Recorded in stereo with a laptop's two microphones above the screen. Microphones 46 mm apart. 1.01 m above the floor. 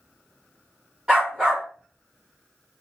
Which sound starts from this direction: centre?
A dog barking, at 1.1 s.